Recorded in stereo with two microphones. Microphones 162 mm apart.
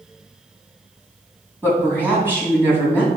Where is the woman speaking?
15° right (ahead or behind), 4 m.